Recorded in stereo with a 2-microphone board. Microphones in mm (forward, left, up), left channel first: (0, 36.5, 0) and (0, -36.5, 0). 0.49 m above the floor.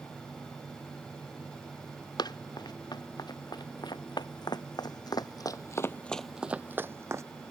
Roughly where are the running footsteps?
Left.